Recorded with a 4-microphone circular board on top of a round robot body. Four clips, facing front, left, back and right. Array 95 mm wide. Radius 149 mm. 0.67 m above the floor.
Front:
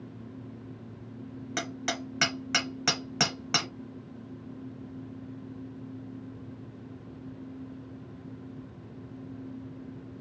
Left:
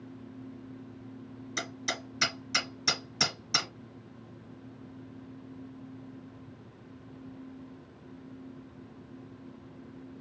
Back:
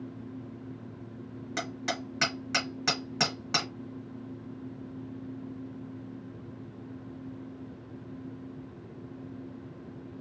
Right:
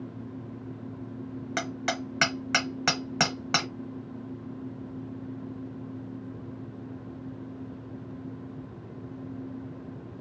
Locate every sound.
1.6 s hammering: 80° right, 0.9 m